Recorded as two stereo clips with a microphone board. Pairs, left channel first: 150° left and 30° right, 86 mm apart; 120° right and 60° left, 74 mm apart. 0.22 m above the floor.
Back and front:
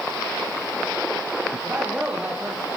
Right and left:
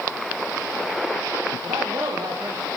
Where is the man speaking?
50° left, 7.5 m.